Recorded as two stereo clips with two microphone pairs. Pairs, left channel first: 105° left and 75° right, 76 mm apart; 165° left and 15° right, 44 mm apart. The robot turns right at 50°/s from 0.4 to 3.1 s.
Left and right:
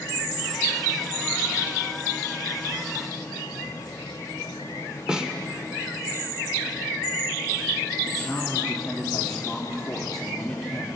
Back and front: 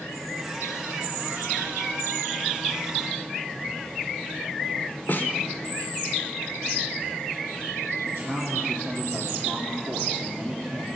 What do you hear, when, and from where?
5.1 s a snare drum: 155° right, 1.1 m
8.1 s a man speaking: 15° left, 1.8 m